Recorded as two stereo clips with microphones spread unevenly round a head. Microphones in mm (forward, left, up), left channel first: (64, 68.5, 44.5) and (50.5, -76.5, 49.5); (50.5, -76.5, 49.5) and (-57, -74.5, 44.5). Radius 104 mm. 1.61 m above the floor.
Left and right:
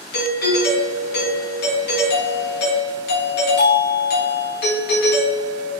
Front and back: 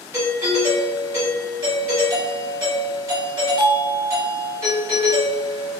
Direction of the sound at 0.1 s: 105° left.